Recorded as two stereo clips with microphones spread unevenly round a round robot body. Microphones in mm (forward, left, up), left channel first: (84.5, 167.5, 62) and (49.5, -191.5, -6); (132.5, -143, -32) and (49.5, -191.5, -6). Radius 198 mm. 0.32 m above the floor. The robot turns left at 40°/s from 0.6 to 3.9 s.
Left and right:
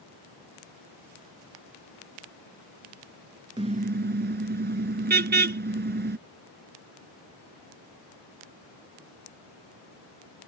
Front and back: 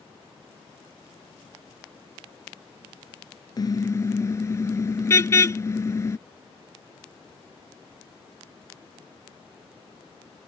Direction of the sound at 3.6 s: 20° right.